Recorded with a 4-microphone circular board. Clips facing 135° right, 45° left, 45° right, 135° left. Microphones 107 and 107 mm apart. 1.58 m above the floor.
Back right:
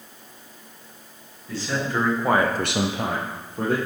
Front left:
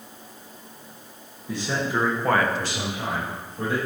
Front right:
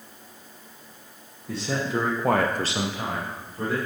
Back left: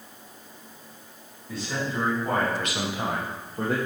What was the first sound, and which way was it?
A man speaking, 30° right.